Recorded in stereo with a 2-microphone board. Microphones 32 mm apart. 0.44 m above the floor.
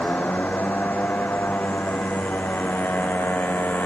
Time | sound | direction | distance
0.0 | a motorcycle | 60° left (ahead or behind) | ?